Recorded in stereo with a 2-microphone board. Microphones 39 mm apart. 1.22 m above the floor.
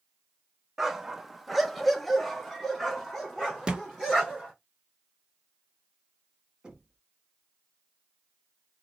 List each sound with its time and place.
0.8 s a dog barking: 10° right (ahead or behind), 0.7 m; by 4.5 s 10° left (ahead or behind), 2 m
3.7 s a thud: 25° right (ahead or behind), 0.8 m
6.6 s knocking: 20° right (ahead or behind), 1.7 m